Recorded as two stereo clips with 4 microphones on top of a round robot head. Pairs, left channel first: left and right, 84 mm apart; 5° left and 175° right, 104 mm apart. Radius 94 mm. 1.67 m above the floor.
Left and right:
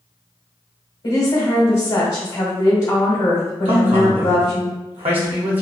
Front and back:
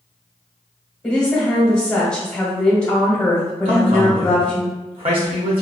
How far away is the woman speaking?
About 1.1 m.